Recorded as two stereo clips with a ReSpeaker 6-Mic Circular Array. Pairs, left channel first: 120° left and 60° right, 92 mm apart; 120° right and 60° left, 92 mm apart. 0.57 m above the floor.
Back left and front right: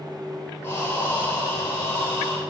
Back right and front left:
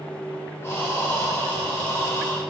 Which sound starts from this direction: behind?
Breathing, at 0.6 s.